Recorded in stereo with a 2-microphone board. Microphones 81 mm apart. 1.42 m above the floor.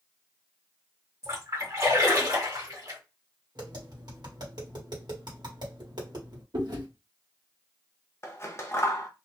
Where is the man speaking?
I don't hear a man speaking.